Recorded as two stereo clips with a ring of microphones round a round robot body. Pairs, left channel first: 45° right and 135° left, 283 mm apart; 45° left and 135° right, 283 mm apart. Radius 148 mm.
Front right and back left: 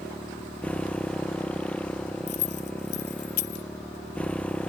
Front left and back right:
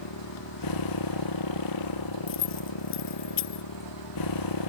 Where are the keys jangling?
5° right.